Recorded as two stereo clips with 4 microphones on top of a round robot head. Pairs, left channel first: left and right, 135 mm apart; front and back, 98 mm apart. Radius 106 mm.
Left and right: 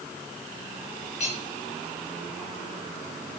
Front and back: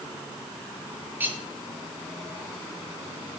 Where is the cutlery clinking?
110° left, 9 m.